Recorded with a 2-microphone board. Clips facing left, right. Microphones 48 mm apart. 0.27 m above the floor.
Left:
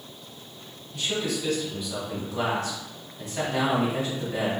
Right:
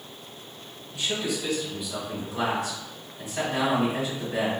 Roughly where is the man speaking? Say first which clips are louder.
Even; centre.